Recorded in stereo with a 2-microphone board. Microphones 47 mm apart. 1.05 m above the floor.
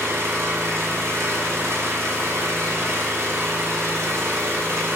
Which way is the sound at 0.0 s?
80° right.